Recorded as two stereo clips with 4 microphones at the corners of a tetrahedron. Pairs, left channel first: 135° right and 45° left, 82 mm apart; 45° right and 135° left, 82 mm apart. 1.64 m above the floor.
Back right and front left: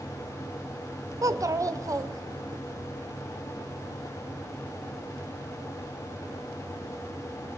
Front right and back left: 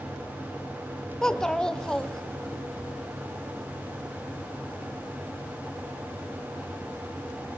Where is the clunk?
No clunk in this recording.